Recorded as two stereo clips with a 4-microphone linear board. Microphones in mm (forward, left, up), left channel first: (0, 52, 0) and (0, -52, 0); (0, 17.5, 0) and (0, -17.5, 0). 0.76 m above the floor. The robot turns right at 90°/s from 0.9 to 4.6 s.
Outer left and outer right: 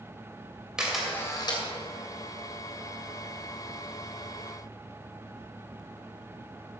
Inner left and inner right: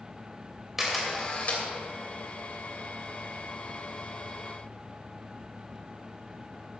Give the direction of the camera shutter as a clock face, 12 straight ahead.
12 o'clock.